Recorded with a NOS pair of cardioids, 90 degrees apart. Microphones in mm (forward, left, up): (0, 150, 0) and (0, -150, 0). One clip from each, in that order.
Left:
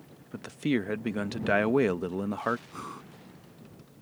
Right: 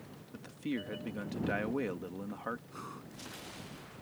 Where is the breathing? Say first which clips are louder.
Left 5 dB; 40° left.